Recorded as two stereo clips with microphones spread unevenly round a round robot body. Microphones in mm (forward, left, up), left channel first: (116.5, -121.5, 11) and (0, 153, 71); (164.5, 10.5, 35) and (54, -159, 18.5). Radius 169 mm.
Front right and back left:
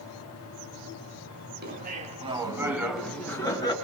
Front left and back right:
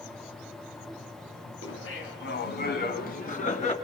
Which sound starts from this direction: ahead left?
Laughter, at 1.6 s.